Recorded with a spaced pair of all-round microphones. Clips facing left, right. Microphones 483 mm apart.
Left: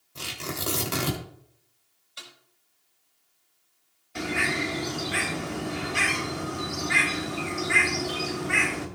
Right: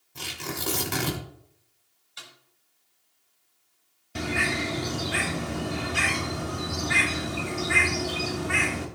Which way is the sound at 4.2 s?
55° right (ahead or behind).